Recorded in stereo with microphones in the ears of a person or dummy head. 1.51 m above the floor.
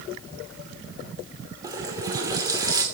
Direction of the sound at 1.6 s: 20° right (ahead or behind).